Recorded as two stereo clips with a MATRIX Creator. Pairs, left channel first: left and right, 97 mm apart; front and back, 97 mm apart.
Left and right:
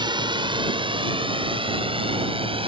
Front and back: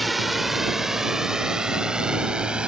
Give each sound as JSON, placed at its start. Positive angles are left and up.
{"t": 0.0, "sound": "a drone", "azimuth_deg": -90}